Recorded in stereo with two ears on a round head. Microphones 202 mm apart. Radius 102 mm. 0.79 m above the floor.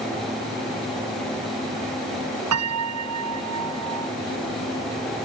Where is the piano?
85° right.